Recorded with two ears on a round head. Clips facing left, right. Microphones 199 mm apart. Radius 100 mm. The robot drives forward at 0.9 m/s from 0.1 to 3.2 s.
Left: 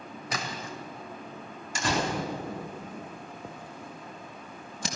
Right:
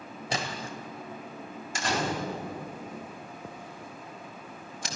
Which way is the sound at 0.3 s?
25° right (ahead or behind).